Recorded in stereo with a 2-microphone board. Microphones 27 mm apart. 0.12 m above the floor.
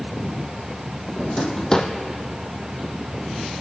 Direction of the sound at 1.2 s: 30° left (ahead or behind).